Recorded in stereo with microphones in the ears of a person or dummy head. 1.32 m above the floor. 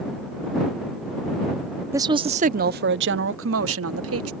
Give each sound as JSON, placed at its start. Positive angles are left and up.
{"t": 1.9, "sound": "a woman speaking", "side_deg": -15}